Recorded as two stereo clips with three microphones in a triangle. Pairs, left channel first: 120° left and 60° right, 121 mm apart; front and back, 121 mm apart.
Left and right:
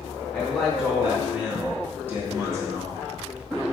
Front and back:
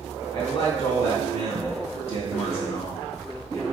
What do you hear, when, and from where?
0.3 s a man speaking: 30° left, 2 m; by 3.6 s 30° right, 1.6 m